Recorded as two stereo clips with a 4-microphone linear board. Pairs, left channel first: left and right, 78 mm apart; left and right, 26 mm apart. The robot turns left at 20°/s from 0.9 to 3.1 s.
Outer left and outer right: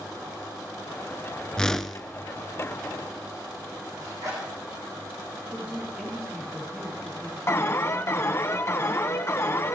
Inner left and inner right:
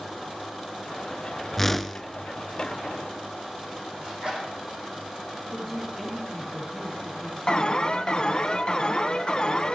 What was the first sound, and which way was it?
A whoosh, 10° left (ahead or behind).